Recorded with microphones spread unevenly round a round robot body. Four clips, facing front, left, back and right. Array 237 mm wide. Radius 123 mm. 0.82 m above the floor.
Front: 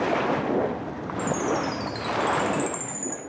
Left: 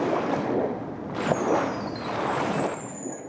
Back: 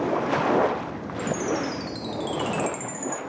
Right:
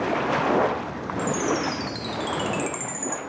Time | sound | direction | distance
1.2 | a chime | 120° right | 0.6 m